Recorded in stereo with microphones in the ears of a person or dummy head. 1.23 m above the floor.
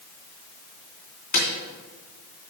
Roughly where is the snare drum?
Left.